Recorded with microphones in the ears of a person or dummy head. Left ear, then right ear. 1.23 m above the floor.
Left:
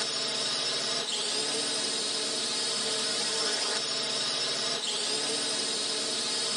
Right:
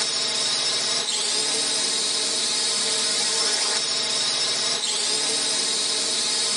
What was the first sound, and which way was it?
A drone, 25° right (ahead or behind).